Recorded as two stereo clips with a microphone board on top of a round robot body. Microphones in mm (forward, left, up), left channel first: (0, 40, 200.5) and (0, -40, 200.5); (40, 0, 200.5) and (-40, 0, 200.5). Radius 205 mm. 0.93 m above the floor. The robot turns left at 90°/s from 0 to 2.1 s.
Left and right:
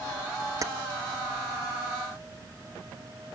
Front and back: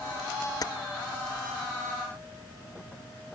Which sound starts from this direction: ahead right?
Keys jangling, at 0.6 s.